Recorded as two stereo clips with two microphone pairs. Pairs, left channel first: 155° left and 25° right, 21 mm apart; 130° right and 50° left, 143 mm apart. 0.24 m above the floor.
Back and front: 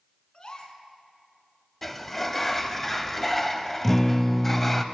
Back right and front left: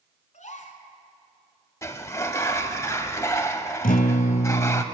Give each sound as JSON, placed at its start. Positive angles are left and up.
{"t": 0.3, "sound": "a gasp", "azimuth_deg": -155, "distance_m": 1.4}
{"t": 1.8, "sound": "a sliding door", "azimuth_deg": -135, "distance_m": 0.7}
{"t": 3.8, "sound": "a guitar", "azimuth_deg": -120, "distance_m": 0.8}